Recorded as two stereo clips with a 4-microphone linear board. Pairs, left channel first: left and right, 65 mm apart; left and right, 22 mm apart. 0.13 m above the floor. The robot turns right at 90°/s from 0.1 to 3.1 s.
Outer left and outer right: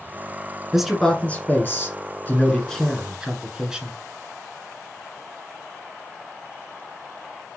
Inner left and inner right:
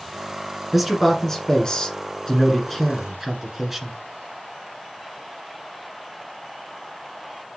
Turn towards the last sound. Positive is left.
turn(degrees=-160)